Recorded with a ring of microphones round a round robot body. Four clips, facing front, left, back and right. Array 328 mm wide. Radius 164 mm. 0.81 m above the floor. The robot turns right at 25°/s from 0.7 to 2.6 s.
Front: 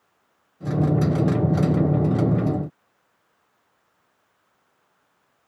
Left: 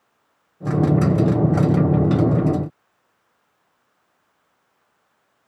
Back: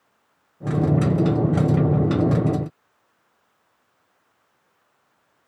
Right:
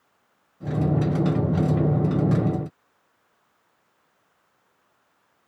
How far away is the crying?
No crying in this recording.